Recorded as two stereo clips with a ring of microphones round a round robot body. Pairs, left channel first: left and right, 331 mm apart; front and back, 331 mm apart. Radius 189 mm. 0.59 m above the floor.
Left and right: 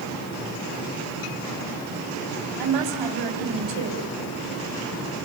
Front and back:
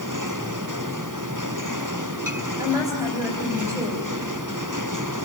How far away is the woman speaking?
About 3.5 m.